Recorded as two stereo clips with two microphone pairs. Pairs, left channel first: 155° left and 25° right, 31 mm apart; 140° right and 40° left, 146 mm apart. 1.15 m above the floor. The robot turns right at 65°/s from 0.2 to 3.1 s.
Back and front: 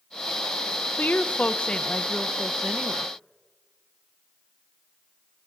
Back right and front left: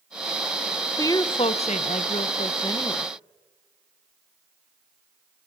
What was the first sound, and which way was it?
A woman speaking, 155° left.